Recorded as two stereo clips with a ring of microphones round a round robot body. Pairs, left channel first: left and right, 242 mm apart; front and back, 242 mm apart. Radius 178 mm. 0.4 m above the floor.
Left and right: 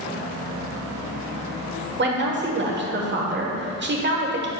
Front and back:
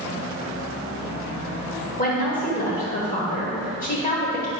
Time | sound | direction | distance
2.0 | a woman speaking | 55° right | 1.3 m